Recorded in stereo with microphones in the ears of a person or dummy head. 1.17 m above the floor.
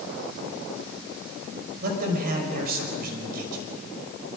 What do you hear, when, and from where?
1.8 s a man speaking: 50° right (ahead or behind), 5.5 m